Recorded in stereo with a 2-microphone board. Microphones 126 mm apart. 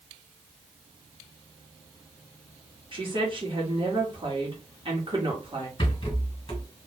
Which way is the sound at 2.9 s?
40° right (ahead or behind).